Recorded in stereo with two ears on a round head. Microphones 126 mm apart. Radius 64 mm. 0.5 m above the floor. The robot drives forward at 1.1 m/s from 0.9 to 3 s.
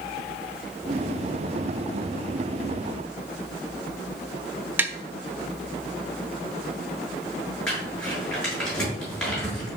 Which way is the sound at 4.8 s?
15° right (ahead or behind).